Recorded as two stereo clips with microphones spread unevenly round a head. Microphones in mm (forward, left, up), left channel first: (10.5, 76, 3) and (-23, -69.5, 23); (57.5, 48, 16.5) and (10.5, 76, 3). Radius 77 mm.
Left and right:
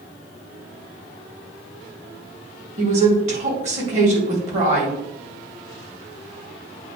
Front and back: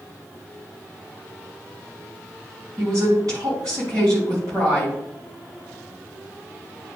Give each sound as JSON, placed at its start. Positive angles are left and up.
{"t": 2.8, "sound": "a woman speaking", "azimuth_deg": -150, "distance_m": 3.5}